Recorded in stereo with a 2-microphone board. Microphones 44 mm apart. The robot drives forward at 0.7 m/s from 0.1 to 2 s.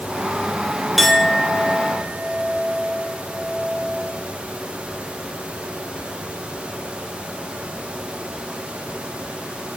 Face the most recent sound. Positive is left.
turn(degrees=0)  # may be behind; listen again after turning